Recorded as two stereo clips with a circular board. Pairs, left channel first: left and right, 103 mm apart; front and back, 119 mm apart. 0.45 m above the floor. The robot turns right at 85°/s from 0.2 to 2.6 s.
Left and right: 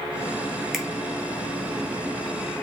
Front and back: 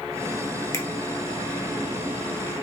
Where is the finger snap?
5° right, 0.7 m; by 0.8 s 5° left, 0.7 m.